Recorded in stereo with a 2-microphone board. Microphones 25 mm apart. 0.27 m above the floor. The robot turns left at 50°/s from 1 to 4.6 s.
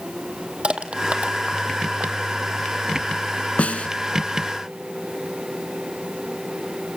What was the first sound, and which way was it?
Crushing, 50° right (ahead or behind).